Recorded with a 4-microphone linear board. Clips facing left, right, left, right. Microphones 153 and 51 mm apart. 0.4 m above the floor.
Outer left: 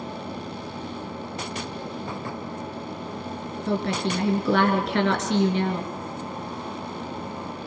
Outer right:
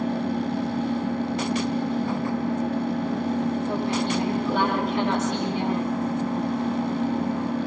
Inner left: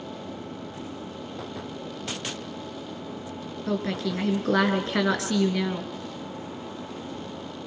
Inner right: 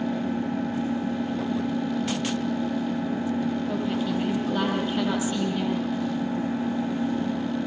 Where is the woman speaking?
80° left, 5.5 m.